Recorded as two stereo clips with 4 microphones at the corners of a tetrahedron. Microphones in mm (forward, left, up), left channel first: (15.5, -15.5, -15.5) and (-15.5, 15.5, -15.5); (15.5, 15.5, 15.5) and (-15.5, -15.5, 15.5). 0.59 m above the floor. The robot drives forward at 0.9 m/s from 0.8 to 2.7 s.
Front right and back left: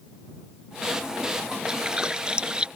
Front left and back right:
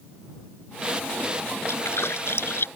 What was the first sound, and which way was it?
A splash, 65° left.